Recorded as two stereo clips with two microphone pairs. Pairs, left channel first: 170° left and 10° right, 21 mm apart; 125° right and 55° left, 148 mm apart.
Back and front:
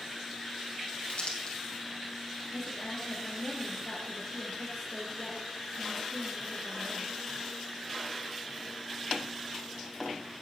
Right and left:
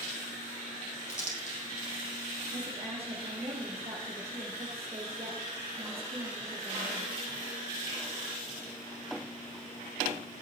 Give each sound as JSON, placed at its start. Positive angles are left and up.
{"t": 1.1, "sound": "crumpling", "azimuth_deg": -155, "distance_m": 3.5}
{"t": 2.5, "sound": "a woman speaking", "azimuth_deg": 100, "distance_m": 2.0}